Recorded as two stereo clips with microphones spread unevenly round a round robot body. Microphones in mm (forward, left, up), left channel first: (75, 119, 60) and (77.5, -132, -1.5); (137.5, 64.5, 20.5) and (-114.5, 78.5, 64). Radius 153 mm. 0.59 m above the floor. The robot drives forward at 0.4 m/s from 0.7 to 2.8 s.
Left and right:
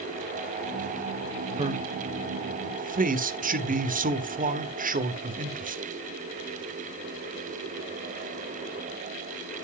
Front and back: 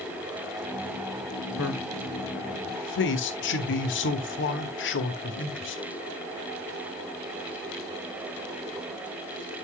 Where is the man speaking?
30° right, 1.9 m; by 5.8 s 40° right, 1.5 m.